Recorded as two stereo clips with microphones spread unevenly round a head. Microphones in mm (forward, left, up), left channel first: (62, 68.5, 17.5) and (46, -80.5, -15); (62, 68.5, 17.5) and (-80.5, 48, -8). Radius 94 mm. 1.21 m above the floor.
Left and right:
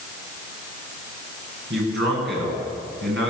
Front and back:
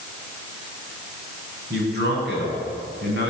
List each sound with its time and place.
1.7 s a man speaking: 135° right, 10 m